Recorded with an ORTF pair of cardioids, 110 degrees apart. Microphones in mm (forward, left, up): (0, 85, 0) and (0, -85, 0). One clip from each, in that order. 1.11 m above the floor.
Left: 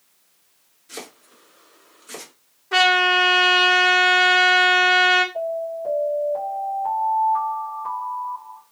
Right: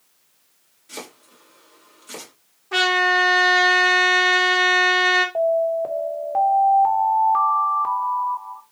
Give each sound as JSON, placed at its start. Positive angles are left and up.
{"t": 0.9, "sound": "chopping", "azimuth_deg": -10, "distance_m": 2.5}
{"t": 2.7, "sound": "a trumpet", "azimuth_deg": 15, "distance_m": 1.5}
{"t": 5.3, "sound": "an alarm", "azimuth_deg": -60, "distance_m": 1.2}